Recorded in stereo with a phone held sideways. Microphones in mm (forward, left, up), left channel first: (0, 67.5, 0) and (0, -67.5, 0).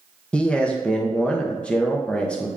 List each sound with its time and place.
0.3 s a man speaking: 10° left (ahead or behind), 0.5 m